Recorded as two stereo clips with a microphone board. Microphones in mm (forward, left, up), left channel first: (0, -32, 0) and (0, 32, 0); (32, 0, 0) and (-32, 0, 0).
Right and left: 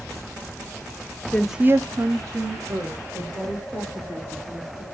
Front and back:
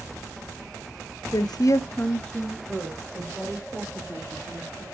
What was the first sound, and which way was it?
A woman speaking, 25° right.